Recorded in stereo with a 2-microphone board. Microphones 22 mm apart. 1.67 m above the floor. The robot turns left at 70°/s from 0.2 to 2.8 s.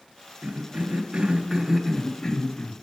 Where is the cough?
80° right, 0.9 m; by 2.7 s 120° left, 0.9 m.